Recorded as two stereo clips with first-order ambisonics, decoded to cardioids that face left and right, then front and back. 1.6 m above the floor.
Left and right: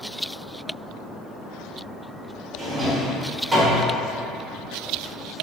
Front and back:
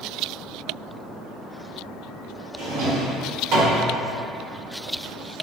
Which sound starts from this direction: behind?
A drawer, at 2.6 s.